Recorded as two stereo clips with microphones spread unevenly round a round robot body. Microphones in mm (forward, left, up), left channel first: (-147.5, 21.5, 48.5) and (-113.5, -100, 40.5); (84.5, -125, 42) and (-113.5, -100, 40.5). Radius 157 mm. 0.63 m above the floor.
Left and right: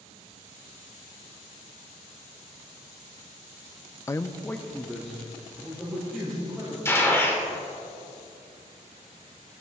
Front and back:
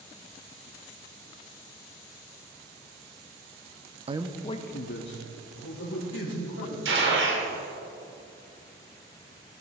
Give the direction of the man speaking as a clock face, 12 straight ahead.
7 o'clock.